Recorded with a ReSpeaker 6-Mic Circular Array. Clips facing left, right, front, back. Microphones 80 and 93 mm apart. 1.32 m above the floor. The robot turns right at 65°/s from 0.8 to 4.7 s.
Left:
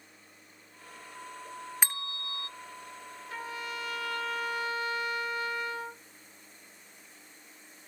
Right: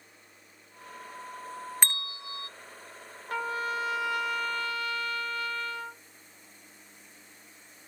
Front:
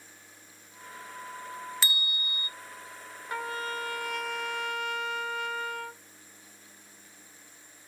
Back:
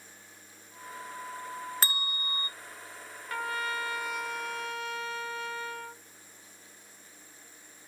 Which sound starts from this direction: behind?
A bell, at 1.8 s.